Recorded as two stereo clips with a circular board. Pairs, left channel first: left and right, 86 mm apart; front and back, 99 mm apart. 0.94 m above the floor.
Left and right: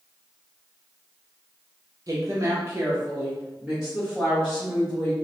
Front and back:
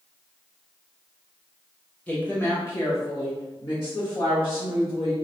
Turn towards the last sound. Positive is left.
turn(degrees=0)